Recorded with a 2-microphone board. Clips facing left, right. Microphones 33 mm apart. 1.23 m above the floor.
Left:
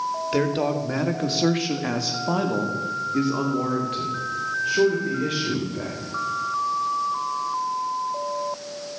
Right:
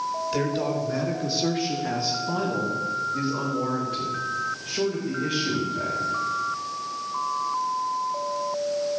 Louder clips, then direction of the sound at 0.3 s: Left 4 dB; 40° left (ahead or behind).